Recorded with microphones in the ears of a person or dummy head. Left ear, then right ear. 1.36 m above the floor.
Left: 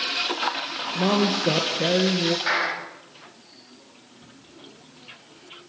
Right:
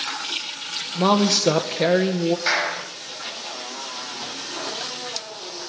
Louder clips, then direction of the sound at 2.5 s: Right 3 dB; 25° right (ahead or behind).